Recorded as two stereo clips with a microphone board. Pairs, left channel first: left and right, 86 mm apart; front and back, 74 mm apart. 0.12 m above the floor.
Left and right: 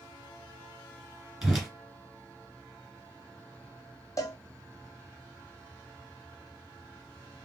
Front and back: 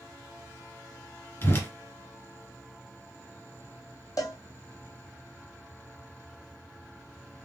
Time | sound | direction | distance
1.4 | a whoosh | 10° right | 1.7 m
4.2 | a cowbell | 40° left | 0.8 m